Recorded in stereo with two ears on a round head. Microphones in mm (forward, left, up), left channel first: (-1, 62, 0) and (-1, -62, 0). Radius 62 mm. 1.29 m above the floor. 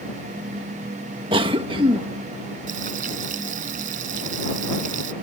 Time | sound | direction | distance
1.3 | a cough | 40° right (ahead or behind) | ?
2.7 | frying | 65° right (ahead or behind) | ?